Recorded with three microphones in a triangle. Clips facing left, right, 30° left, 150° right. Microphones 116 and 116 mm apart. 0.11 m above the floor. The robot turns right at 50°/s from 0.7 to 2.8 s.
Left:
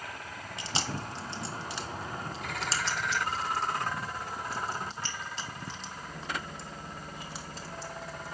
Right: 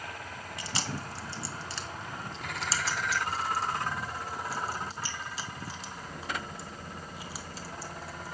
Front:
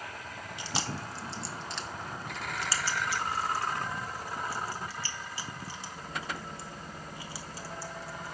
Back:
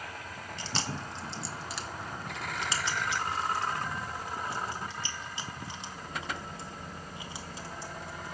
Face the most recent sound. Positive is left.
turn(degrees=-170)